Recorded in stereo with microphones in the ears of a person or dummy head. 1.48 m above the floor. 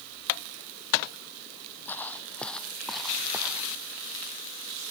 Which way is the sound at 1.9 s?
15° left (ahead or behind).